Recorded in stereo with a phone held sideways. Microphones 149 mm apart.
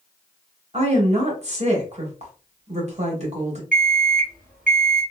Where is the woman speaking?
50° right (ahead or behind), 1.1 m.